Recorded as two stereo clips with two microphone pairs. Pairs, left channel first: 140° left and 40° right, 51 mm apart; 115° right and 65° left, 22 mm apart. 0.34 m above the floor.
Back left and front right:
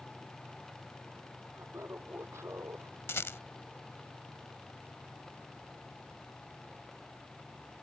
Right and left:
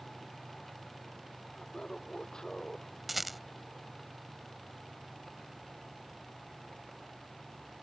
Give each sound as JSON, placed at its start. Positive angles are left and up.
{"t": 1.5, "sound": "laughter", "azimuth_deg": -60}
{"t": 3.1, "sound": "a rattle", "azimuth_deg": 150}